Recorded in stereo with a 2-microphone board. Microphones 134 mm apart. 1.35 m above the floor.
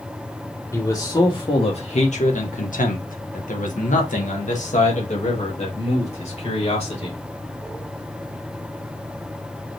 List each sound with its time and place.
0.7 s a man speaking: 25° left (ahead or behind), 1.2 m; by 7.2 s 50° left (ahead or behind), 3 m